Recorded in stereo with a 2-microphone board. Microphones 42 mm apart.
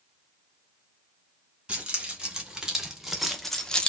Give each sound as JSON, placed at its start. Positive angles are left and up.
{"t": 1.7, "sound": "keys jangling", "side_deg": -25, "distance_m": 1.4}